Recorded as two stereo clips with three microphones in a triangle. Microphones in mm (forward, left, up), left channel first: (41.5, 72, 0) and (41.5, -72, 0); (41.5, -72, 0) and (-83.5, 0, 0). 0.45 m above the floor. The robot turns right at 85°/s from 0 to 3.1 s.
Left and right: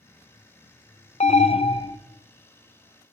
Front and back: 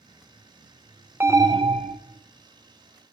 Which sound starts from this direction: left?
An alarm, at 1.2 s.